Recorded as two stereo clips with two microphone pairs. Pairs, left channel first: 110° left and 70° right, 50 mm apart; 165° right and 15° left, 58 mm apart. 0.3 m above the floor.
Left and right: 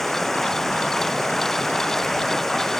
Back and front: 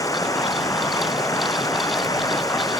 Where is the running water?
165° right.